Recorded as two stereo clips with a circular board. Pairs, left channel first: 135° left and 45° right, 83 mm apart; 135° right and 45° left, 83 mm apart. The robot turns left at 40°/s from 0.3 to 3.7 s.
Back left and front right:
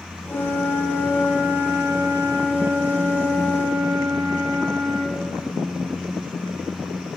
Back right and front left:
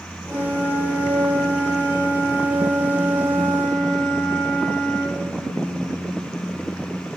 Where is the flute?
65° left, 3.5 m; by 5.2 s 70° right, 3.5 m.